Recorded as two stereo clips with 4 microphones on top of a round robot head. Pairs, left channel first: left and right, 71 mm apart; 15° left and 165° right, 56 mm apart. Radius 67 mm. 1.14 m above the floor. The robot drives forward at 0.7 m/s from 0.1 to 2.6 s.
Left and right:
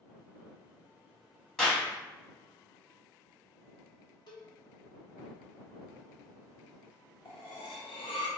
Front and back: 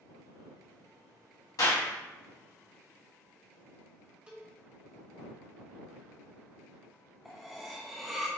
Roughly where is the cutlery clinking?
Left.